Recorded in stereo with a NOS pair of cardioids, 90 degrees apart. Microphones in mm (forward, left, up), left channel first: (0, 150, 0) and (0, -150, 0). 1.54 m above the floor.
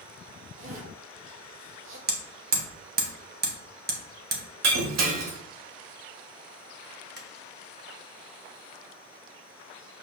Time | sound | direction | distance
0.6 | a zipper | 45° right | 2 m
2.1 | hammering | 35° right | 1.6 m
4.6 | breaking glass | 70° right | 1.9 m
7.2 | tapping | 35° right | 1.6 m